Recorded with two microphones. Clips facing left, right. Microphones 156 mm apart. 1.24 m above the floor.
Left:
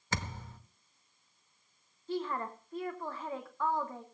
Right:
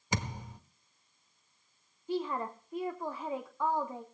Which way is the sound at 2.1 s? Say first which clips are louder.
Right 2 dB; 15° right (ahead or behind).